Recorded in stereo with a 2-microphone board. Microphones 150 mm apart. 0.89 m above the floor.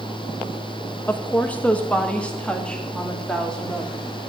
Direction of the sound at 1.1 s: 10° left (ahead or behind).